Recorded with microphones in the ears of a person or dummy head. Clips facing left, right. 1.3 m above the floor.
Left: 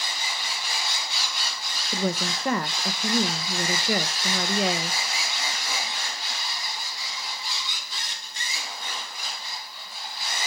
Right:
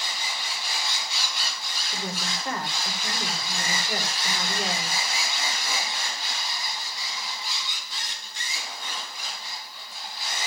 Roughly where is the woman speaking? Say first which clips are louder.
Left 7 dB; left.